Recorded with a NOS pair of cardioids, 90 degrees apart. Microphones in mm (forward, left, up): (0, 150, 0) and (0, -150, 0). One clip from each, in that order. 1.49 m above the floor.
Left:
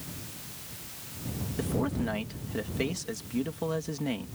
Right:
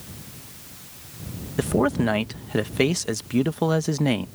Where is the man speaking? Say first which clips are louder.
Right 10 dB; 65° right.